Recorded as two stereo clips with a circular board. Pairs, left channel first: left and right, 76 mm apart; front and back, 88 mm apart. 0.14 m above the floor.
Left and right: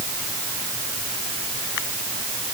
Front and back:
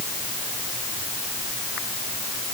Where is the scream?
No scream in this recording.